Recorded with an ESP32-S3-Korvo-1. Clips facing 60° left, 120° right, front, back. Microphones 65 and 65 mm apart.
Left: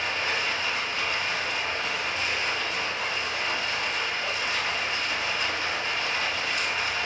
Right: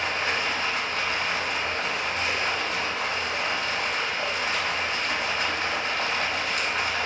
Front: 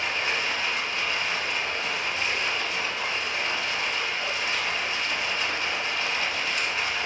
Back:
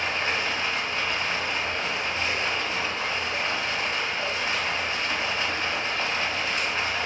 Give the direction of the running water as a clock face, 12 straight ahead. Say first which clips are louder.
Right 2 dB, back 1 dB; 4 o'clock.